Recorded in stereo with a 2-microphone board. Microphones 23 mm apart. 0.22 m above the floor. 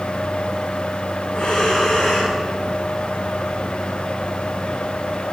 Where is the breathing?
55° left (ahead or behind), 6 m.